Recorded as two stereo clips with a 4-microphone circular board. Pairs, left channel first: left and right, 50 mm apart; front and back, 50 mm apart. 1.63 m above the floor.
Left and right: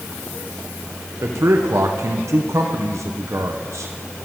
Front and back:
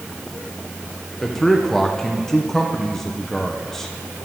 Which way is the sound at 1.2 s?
80° right.